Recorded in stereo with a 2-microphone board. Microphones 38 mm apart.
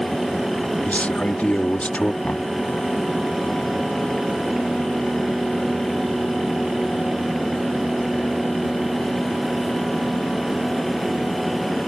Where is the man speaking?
40° left (ahead or behind).